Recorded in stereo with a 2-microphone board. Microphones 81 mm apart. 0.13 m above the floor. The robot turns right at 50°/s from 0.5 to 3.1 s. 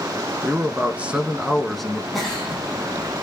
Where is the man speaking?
20° right (ahead or behind), 1.4 m; by 2.0 s 5° left (ahead or behind), 1.4 m.